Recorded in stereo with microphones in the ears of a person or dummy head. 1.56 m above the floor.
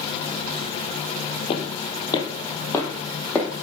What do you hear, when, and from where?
1.5 s footsteps: 40° left (ahead or behind), 2.5 m; by 3.5 s 15° left (ahead or behind), 4 m